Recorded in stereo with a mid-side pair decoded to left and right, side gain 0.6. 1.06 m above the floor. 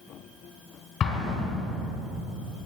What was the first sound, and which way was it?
An explosion, 55° left.